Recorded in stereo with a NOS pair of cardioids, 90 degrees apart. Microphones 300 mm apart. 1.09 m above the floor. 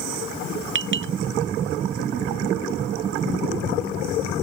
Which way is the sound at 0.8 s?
40° right.